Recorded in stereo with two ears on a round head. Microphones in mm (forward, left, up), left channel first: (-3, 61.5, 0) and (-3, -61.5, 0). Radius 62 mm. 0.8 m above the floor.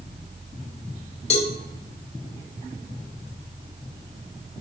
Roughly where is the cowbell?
Left.